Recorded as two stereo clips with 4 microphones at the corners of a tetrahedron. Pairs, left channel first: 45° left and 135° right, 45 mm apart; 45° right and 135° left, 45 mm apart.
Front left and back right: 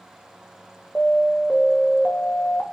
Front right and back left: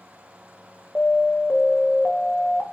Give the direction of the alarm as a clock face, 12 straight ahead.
12 o'clock.